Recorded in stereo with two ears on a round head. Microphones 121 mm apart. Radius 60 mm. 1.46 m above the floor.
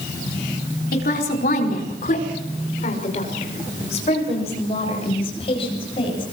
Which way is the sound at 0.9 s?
75° left (ahead or behind).